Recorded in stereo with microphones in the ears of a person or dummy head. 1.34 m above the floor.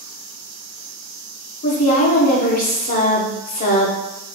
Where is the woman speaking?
35° left (ahead or behind), 0.7 m.